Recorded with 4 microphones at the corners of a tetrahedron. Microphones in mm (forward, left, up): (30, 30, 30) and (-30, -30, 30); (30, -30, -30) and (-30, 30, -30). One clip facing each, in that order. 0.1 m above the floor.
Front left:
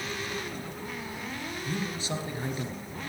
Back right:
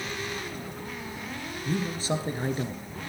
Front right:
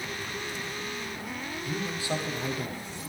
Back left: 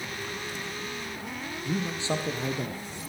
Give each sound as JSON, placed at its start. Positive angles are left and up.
{"t": 1.6, "sound": "a man speaking", "azimuth_deg": -170, "distance_m": 1.7}